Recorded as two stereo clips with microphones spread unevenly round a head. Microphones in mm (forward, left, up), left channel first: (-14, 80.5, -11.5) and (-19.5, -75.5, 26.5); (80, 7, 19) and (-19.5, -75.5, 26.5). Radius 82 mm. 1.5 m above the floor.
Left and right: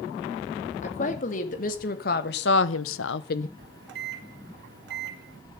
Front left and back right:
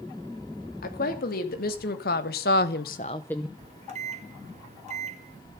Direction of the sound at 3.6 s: 105° right.